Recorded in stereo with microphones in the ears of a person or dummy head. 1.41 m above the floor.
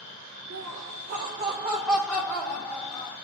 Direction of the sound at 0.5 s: 80° right.